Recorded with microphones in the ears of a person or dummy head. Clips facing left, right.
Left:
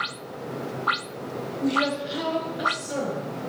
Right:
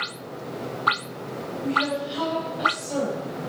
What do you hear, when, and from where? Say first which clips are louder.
1.6 s a woman speaking: left 2 dB; 60° left (ahead or behind), 0.6 m; by 3.4 s 5° left (ahead or behind), 1.7 m